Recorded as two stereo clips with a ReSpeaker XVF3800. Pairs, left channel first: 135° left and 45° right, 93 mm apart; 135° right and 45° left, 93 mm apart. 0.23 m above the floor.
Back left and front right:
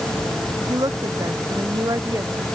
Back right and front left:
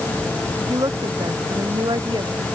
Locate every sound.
0.7 s a woman speaking: straight ahead; by 2.5 s 10° left